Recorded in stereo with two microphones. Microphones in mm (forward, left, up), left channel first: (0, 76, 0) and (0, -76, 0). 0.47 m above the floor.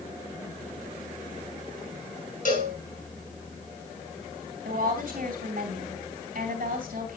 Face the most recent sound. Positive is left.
turn(degrees=-70)  # may be behind; listen again after turning